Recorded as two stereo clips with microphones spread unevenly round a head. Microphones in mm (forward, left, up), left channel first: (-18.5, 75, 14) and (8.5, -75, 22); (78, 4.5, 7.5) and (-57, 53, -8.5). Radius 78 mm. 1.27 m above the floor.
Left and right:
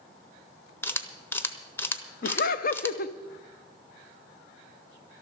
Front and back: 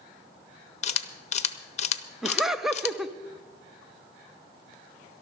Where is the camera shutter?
25° left, 0.9 m.